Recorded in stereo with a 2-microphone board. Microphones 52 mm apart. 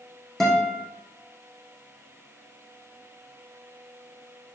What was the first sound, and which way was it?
A guitar, 5° left (ahead or behind).